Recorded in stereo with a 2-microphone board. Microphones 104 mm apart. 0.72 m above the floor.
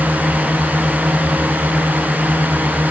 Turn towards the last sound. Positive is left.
turn(degrees=-20)  # may be behind; listen again after turning